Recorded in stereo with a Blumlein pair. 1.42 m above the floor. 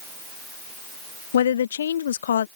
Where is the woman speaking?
65° left.